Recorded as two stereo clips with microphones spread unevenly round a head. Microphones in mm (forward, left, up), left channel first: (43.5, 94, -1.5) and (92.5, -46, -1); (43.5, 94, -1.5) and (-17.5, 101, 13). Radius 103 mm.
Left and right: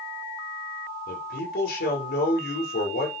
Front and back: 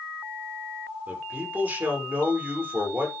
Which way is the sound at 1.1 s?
115° left.